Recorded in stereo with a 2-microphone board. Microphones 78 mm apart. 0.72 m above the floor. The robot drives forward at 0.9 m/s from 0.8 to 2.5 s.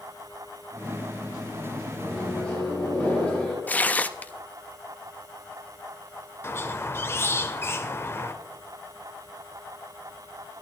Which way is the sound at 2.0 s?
10° left (ahead or behind).